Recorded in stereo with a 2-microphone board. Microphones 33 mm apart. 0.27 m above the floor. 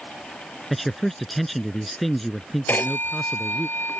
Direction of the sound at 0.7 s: 5° left (ahead or behind).